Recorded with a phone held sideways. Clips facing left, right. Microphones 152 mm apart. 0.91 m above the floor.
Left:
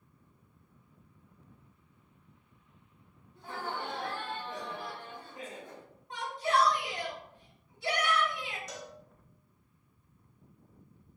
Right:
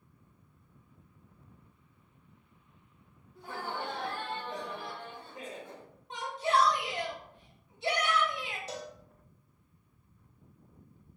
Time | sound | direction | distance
3.4 | laughter | 5° right (ahead or behind) | 0.8 m
6.1 | a shout | 20° right (ahead or behind) | 1.4 m
8.7 | a cowbell | 30° right (ahead or behind) | 0.6 m